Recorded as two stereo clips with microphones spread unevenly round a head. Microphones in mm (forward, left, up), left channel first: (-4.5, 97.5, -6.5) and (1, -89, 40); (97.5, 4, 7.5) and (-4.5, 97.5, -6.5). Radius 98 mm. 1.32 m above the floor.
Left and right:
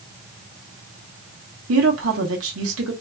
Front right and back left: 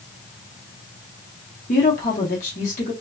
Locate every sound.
1.7 s a woman speaking: 90° right, 1.0 m